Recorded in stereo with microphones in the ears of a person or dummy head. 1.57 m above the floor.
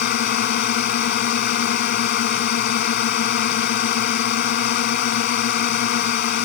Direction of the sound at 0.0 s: 50° left (ahead or behind).